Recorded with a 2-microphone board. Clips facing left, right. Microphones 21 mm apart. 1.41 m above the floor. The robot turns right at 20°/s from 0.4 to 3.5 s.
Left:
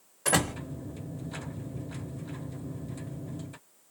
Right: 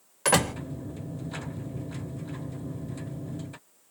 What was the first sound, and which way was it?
A door slam, 85° right.